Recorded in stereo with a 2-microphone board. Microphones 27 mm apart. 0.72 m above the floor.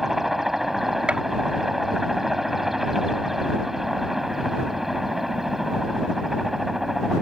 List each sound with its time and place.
0.0 s a helicopter: 10° right (ahead or behind)
1.1 s a gunshot: 45° right (ahead or behind)